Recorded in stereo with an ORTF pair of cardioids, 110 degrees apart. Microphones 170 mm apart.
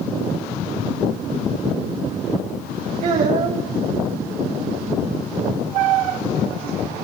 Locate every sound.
3.0 s a child speaking: 45° right, 2.5 m